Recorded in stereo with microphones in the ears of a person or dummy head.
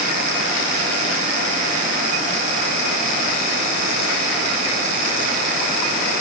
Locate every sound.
Only background noise.